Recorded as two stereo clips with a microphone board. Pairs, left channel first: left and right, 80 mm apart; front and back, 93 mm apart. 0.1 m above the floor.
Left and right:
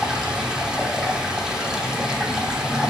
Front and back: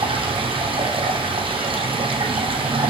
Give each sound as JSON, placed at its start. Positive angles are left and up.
{"t": 0.0, "sound": "running water", "azimuth_deg": -170, "distance_m": 1.0}